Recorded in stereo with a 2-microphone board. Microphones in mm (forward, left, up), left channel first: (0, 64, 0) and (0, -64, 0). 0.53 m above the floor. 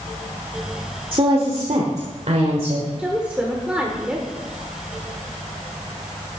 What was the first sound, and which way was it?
A woman speaking, 40° right (ahead or behind).